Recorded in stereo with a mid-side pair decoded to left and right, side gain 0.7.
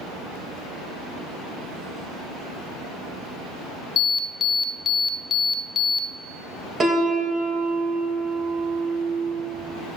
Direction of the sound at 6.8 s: 25° right.